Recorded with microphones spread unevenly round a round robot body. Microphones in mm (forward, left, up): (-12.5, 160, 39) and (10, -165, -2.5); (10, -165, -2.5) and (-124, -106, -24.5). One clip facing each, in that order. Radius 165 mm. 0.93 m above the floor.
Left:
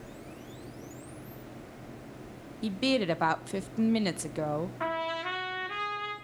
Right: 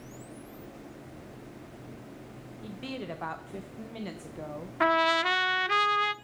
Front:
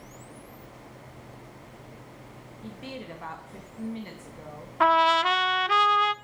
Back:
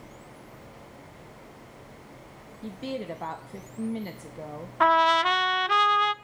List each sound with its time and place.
2.6 s a woman speaking: 100° left, 0.6 m
4.8 s a trumpet: 105° right, 0.6 m